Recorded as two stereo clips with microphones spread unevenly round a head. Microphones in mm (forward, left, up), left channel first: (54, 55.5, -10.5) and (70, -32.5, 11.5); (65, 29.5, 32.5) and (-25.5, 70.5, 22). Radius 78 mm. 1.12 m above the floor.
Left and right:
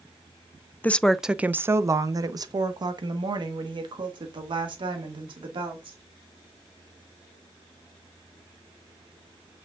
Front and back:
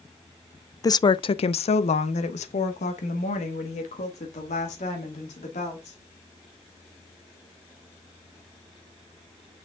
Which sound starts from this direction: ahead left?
A woman speaking, at 0.8 s.